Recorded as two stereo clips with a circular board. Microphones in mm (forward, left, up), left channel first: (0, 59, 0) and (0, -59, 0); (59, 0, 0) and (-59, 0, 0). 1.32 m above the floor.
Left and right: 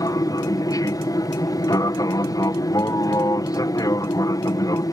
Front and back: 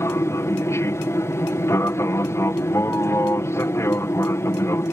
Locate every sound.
0.0 s an aircraft: 55° left